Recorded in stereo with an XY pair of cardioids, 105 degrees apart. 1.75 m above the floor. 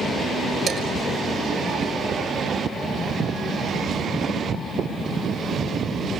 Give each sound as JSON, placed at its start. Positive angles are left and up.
{"t": 0.7, "sound": "dishes clattering", "azimuth_deg": -60, "distance_m": 4.5}